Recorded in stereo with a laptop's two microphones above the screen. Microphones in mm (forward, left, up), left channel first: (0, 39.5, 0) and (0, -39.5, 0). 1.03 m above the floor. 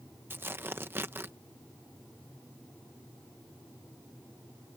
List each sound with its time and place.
0.3 s tearing paper: 30° right (ahead or behind)